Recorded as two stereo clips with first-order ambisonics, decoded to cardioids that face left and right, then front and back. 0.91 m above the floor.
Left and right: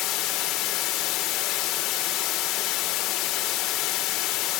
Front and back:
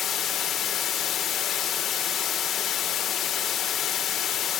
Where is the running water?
55° left, 1.9 m.